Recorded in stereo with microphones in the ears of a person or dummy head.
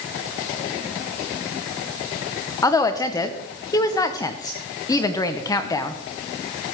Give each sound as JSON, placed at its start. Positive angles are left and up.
{"t": 2.6, "sound": "a woman speaking", "side_deg": 15, "distance_m": 0.8}